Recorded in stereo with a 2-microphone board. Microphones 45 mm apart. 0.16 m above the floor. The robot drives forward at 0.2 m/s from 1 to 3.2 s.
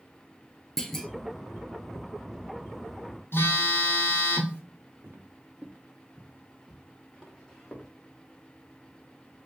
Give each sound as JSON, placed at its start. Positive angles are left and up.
{"t": 0.8, "sound": "a clunk", "side_deg": 5, "distance_m": 0.6}
{"t": 3.3, "sound": "a phone buzzing", "side_deg": 55, "distance_m": 1.1}
{"t": 5.0, "sound": "footsteps", "side_deg": -55, "distance_m": 0.7}